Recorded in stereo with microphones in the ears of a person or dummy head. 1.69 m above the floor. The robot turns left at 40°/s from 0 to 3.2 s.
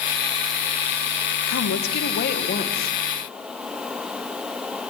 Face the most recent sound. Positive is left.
turn(degrees=20)